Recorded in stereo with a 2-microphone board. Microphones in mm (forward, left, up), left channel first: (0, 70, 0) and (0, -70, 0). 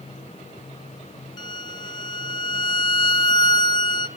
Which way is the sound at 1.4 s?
35° left (ahead or behind).